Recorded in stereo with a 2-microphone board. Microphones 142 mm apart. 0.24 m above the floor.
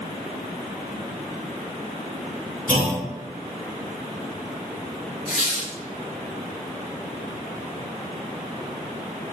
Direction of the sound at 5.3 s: 50° left (ahead or behind).